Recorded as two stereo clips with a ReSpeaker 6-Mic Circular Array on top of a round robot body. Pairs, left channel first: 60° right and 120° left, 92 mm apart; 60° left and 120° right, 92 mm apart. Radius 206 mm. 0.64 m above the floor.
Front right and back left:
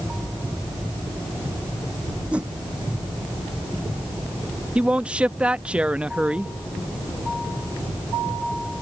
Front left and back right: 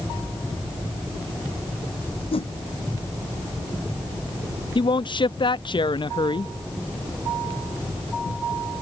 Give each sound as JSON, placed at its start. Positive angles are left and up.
{"t": 2.3, "sound": "a whoosh", "azimuth_deg": 40}
{"t": 4.8, "sound": "a man speaking", "azimuth_deg": 45}